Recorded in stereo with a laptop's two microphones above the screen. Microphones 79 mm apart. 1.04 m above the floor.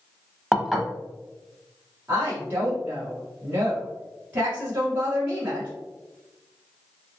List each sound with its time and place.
0.5 s dishes clattering: 5° right (ahead or behind), 0.6 m
2.1 s a woman speaking: 25° right (ahead or behind), 1.1 m